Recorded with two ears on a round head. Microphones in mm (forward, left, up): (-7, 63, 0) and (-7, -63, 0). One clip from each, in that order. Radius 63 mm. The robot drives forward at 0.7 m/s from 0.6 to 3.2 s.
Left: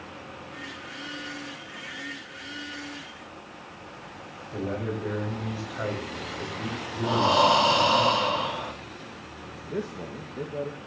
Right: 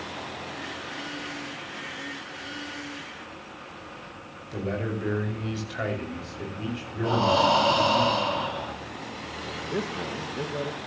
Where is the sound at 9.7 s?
35° right (ahead or behind), 1.6 m.